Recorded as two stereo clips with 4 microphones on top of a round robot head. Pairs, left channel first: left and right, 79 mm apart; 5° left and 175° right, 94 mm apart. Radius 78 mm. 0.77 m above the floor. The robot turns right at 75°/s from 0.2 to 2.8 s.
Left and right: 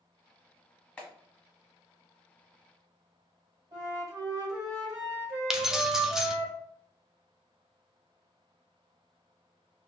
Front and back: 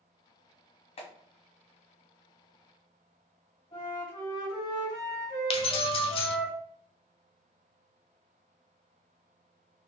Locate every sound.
1.0 s a clap: 20° left, 1.4 m; by 1.1 s 25° left, 1.4 m
3.7 s a flute: 45° right, 1.9 m
5.5 s keys jangling: 5° right, 0.7 m